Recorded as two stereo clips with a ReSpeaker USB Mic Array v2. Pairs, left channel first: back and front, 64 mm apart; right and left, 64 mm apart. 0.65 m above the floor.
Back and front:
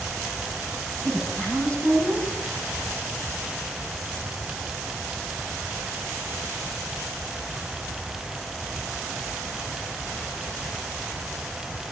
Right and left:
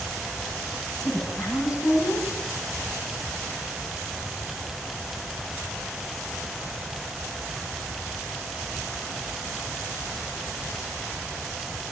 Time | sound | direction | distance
1.0 | a woman speaking | 115° right | 9.5 m